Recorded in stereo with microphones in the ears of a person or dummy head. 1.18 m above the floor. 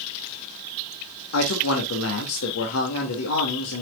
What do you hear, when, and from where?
1.3 s a man speaking: 80° left, 2 m